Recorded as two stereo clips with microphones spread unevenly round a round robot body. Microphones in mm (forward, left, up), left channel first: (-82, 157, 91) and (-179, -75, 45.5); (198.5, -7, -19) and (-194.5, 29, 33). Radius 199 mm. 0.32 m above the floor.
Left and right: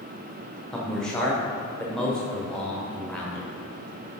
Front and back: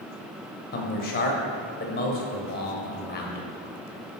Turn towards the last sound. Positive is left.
turn(degrees=-35)